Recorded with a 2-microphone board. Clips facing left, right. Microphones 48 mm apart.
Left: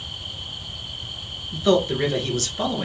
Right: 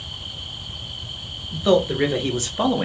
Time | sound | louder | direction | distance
1.5 | a man speaking | right 1 dB | 10° right (ahead or behind) | 1.5 m